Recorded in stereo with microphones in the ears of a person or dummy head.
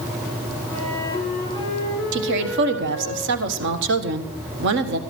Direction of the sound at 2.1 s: 70° right (ahead or behind).